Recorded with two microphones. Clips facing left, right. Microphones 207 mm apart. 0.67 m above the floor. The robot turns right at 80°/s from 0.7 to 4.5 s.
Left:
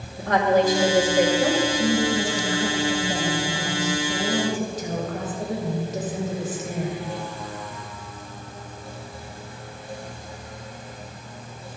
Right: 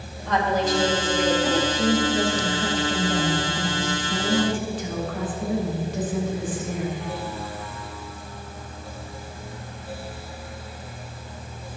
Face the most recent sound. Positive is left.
turn(degrees=135)